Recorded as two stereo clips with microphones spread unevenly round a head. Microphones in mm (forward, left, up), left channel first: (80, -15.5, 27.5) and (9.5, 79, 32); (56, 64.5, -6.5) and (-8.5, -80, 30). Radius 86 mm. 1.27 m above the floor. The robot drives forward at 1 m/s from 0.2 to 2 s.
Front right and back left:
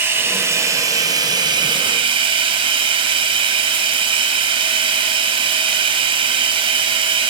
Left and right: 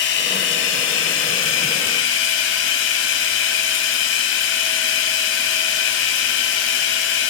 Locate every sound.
0.0 s running water: 55° left, 4 m; by 7.3 s 85° left, 3 m